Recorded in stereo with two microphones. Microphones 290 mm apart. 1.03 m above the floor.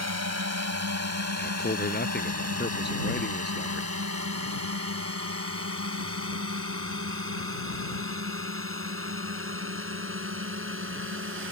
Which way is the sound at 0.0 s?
60° right (ahead or behind).